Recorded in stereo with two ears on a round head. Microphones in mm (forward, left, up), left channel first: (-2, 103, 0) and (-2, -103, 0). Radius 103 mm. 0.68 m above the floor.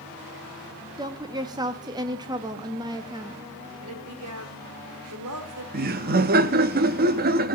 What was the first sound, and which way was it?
A woman speaking, 15° right (ahead or behind).